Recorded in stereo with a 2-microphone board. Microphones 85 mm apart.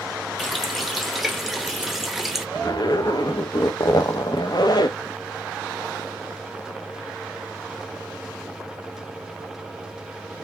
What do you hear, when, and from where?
0.4 s a running tap: centre (ahead or behind), 0.9 m
2.5 s a zipper: 55° left (ahead or behind), 0.8 m